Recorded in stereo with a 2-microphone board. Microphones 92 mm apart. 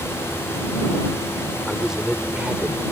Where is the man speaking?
Centre (ahead or behind); by 2.8 s 20° right (ahead or behind).